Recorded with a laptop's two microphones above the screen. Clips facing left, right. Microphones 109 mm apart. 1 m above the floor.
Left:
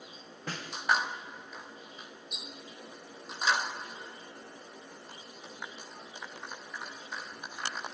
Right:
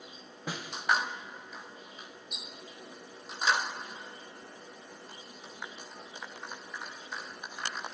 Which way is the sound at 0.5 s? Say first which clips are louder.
Right 1 dB; 10° right (ahead or behind).